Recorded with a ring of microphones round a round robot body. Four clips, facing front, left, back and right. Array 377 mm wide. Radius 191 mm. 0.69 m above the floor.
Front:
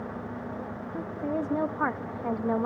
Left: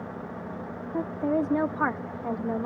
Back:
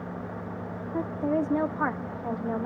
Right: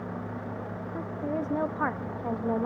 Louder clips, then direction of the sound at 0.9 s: Left 6 dB, back 4 dB; 135° left.